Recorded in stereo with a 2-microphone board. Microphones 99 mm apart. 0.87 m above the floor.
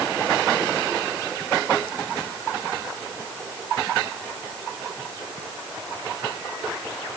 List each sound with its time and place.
Only background noise.